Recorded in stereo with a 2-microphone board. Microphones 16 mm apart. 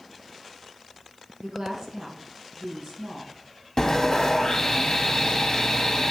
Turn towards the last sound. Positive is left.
turn(degrees=40)  # may be behind; listen again after turning